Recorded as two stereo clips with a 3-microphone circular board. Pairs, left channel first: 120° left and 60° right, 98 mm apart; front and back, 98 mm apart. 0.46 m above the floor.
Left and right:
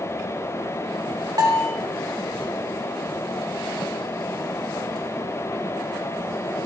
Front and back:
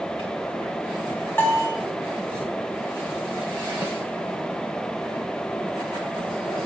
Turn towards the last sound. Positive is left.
turn(degrees=-55)